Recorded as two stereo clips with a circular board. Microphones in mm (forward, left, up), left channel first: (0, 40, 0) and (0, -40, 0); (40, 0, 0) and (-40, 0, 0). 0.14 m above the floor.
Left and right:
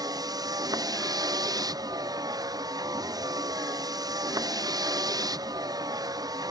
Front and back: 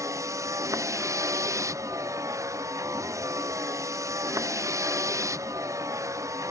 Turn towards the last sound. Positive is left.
turn(degrees=-130)